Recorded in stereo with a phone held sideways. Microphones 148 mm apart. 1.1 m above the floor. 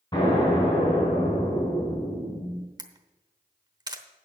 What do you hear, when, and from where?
0.1 s an explosion: 30° left (ahead or behind), 5 m
2.8 s a camera shutter: 30° right (ahead or behind), 0.9 m